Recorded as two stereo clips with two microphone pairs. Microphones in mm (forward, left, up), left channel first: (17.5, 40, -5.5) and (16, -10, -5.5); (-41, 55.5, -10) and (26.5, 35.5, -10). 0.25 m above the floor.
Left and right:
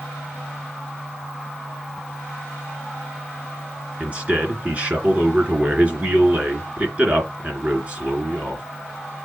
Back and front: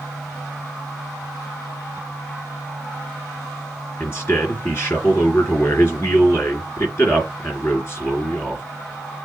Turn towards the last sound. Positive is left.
turn(degrees=-145)